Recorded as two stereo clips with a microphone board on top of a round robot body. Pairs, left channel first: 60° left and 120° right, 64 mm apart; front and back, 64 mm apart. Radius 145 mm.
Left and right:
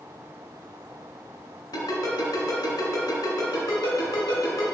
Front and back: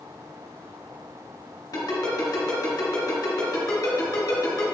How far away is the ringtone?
About 2 m.